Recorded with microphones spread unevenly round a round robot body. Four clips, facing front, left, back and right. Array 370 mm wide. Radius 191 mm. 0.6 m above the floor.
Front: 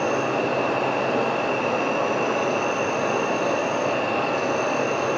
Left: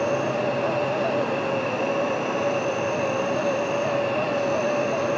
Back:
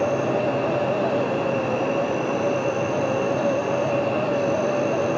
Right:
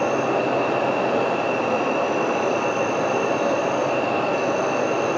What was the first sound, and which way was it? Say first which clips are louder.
An insect: right 3 dB, back 1 dB; 75° right.